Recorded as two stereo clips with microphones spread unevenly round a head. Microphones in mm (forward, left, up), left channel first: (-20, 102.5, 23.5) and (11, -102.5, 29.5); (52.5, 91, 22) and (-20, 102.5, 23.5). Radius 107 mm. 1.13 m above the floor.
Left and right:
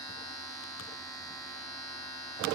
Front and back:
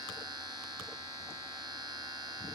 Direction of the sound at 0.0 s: 170° left.